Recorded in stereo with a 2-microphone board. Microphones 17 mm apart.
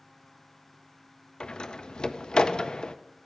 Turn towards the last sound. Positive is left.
turn(degrees=70)  # may be behind; listen again after turning